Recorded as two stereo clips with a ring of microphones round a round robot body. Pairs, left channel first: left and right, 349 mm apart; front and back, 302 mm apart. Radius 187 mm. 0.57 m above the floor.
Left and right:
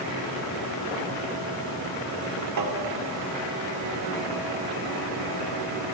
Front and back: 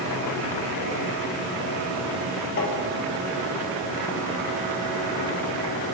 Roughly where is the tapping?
Ahead right.